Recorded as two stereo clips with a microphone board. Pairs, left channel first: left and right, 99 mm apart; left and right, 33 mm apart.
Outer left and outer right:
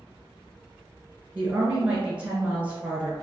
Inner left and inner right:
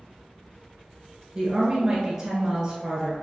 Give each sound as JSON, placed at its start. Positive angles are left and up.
{"t": 1.4, "sound": "a woman speaking", "side_deg": -15, "distance_m": 1.4}